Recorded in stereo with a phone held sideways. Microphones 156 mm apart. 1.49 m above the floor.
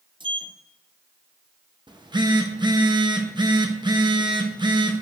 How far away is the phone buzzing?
About 0.8 m.